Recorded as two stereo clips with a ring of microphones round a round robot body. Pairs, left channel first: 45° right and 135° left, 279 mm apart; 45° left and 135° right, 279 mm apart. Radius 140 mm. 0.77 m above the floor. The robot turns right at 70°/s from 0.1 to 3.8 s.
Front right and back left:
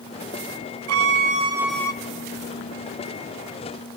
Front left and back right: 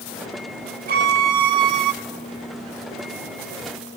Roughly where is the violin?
Behind.